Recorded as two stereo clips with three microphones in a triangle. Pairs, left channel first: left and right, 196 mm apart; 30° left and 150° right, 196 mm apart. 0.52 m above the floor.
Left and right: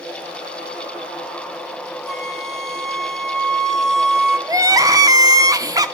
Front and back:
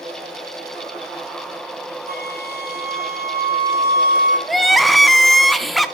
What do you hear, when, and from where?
2.1 s a flute: straight behind, 3 m
4.5 s crying: 60° right, 0.8 m